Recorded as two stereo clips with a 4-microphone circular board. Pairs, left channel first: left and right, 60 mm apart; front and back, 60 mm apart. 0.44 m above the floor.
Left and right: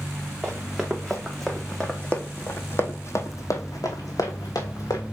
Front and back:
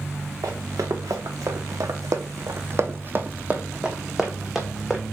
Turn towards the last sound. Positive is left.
turn(degrees=85)